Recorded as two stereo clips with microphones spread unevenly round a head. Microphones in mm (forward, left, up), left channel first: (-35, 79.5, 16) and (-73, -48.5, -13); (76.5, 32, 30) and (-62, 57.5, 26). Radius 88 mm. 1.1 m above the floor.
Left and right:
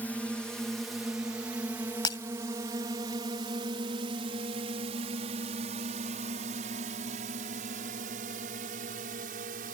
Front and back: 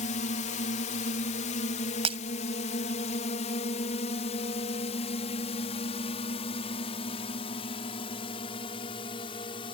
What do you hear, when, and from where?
0.0 s a drone: 15° right; by 9.7 s 70° right
2.0 s breaking glass: 125° left